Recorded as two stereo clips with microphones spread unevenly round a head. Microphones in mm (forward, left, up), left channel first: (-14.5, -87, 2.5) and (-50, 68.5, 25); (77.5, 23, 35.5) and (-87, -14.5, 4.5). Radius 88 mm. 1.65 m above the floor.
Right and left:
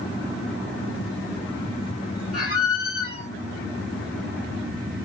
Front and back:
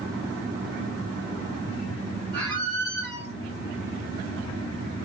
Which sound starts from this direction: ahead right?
A squeak, at 2.3 s.